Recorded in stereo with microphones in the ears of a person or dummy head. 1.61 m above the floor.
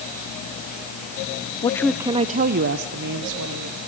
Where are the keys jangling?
No keys jangling in this recording.